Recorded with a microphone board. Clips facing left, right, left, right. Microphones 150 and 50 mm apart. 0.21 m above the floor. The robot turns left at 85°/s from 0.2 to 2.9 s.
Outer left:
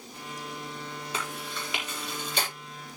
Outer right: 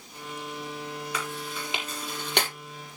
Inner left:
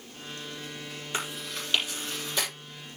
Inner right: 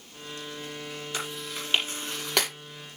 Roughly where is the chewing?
Left.